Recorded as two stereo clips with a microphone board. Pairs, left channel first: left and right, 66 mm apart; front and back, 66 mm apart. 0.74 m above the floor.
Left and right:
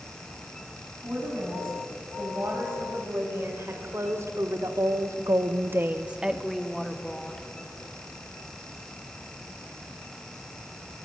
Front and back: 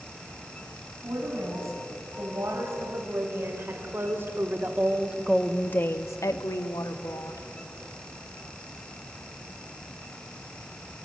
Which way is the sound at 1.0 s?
140° right.